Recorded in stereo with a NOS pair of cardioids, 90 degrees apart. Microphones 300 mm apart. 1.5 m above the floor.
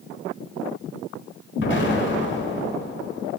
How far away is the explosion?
About 1.1 m.